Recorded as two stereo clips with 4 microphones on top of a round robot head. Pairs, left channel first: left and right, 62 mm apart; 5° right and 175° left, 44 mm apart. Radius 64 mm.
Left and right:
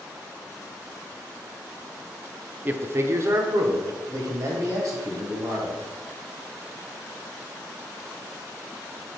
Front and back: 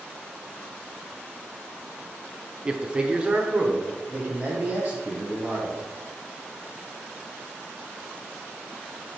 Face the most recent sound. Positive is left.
turn(degrees=-125)